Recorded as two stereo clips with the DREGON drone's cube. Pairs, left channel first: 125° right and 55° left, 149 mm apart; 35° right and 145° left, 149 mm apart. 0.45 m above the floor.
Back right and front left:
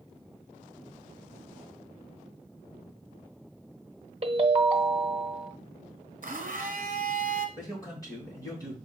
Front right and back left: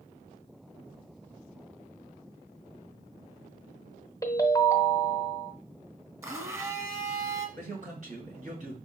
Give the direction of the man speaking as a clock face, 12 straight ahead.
6 o'clock.